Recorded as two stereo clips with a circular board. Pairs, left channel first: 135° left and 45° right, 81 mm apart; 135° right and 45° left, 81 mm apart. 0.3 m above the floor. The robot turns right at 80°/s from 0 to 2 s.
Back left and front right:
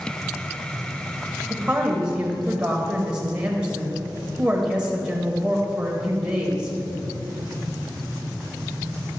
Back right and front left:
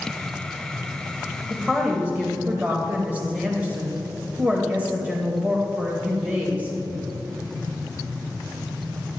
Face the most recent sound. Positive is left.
turn(degrees=10)